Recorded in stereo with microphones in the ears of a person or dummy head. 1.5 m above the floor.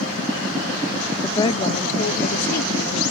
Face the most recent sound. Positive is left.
turn(degrees=75)  # may be behind; listen again after turning